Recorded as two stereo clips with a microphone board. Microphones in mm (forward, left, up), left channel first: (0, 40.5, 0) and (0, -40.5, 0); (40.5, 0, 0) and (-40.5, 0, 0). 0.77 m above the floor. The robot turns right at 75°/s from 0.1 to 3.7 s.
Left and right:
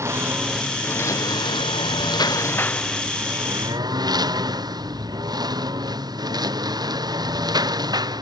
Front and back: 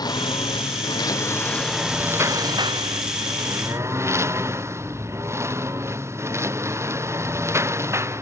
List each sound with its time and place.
0.0 s a lawn mower: 35° right; by 8.2 s 125° right